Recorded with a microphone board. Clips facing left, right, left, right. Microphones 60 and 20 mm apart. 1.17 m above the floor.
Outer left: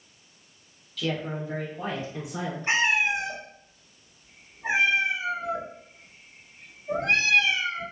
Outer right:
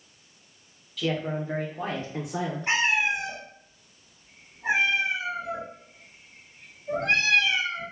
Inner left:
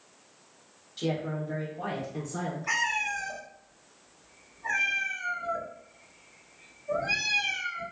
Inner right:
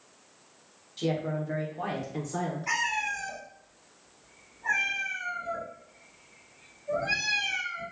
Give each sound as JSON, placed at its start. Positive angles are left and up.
{"t": 1.0, "sound": "a woman speaking", "side_deg": 0, "distance_m": 0.7}
{"t": 2.7, "sound": "a cat meowing", "side_deg": -80, "distance_m": 1.9}